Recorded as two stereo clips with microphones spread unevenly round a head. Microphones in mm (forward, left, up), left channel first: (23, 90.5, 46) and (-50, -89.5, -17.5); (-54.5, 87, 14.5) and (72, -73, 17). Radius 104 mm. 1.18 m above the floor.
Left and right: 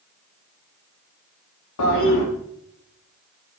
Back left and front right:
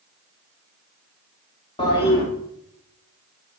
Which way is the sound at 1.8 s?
60° left.